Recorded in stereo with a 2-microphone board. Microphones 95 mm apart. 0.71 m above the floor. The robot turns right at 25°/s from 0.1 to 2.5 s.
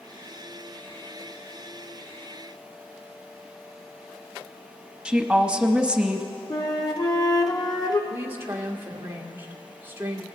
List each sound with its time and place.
5.0 s a woman speaking: 10° right (ahead or behind), 0.9 m
6.5 s a flute: 40° left (ahead or behind), 0.8 m
8.1 s a woman speaking: 25° right (ahead or behind), 1.5 m